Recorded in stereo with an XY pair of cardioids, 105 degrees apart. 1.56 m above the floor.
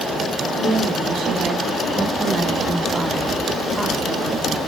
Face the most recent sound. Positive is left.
turn(degrees=15)